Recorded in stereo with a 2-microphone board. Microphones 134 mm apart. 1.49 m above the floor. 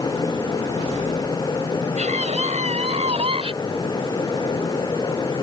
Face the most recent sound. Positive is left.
turn(degrees=-45)  # may be behind; listen again after turning